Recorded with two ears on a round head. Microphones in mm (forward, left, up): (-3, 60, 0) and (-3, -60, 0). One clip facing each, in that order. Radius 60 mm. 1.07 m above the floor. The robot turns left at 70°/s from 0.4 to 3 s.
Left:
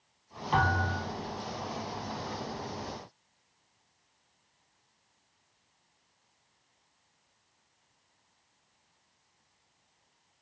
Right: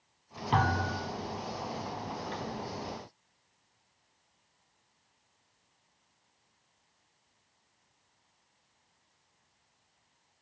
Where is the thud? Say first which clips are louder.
Left 1 dB; 90° right, 1.4 m; by 1.1 s 125° right, 1.4 m.